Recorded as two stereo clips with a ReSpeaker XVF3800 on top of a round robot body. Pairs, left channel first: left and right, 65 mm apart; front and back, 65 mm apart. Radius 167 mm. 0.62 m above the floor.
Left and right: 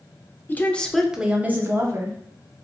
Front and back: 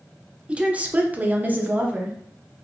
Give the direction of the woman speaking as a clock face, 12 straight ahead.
8 o'clock.